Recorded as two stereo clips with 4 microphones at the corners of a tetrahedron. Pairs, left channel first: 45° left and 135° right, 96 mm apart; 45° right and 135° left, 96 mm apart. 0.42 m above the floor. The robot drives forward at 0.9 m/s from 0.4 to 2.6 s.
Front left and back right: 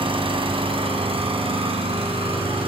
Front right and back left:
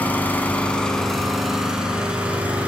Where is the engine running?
115° right, 2 m; by 2.7 s 150° right, 3.5 m.